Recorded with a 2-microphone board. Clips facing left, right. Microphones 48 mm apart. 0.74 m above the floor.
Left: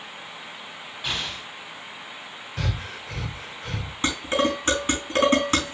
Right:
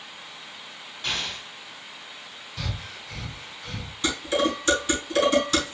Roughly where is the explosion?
Centre.